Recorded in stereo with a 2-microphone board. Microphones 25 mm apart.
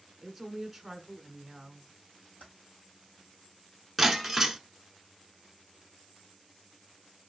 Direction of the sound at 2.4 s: 80° left.